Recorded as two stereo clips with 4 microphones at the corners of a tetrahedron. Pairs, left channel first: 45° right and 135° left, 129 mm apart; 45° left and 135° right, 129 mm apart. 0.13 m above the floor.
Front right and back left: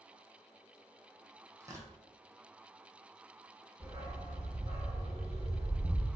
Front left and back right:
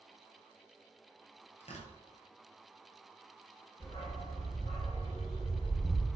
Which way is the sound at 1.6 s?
70° left.